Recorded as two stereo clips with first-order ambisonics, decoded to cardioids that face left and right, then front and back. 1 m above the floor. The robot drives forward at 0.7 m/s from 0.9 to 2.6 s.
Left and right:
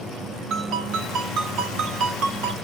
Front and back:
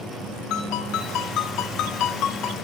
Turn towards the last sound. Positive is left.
turn(degrees=-45)